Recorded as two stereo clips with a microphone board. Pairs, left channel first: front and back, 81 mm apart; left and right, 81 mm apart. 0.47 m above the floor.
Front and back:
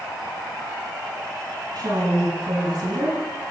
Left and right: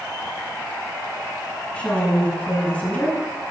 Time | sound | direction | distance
1.8 | a woman speaking | 160° left | 6 m